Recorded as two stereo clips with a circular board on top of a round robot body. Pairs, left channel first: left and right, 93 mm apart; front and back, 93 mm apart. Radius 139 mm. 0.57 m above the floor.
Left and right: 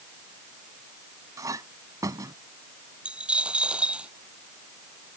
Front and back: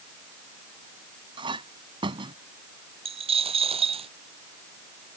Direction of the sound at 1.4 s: 145° right.